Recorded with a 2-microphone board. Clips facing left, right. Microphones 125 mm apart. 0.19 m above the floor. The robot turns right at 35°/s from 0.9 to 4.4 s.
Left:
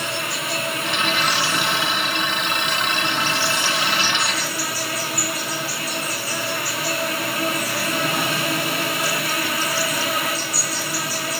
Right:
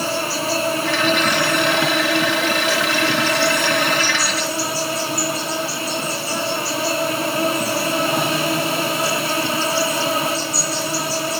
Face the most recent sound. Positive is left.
turn(degrees=-25)